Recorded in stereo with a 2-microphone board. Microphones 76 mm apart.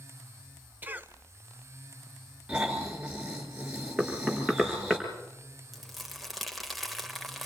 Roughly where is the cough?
Right.